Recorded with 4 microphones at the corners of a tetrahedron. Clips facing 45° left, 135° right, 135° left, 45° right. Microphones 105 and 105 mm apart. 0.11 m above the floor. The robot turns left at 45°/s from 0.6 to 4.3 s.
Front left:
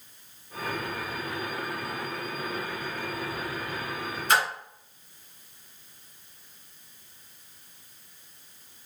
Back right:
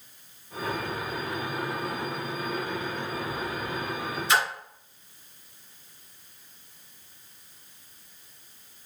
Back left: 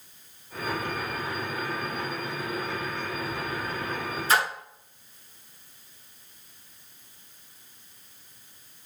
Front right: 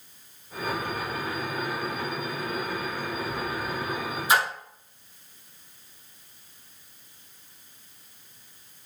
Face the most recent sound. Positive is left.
turn(degrees=30)